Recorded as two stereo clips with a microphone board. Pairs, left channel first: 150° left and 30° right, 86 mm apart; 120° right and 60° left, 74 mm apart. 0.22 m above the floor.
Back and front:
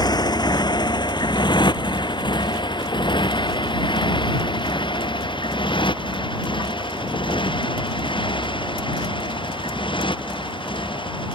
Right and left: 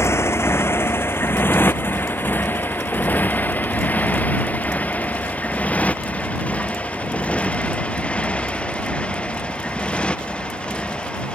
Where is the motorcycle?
175° right; by 11.3 s 165° left.